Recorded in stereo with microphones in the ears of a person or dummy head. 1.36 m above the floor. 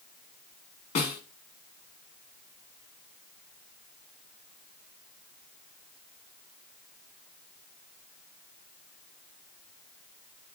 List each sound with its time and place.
0.9 s a snare drum: 35° left (ahead or behind), 1.7 m